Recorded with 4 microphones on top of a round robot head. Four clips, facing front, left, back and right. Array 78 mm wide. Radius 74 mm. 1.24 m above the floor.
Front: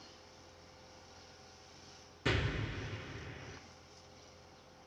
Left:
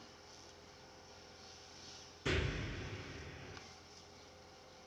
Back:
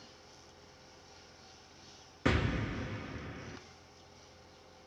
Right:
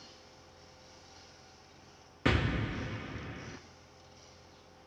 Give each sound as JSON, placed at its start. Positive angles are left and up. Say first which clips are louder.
{"t": 2.2, "sound": "an explosion", "louder": "right 8 dB, back 4 dB", "azimuth_deg": -130, "distance_m": 1.5}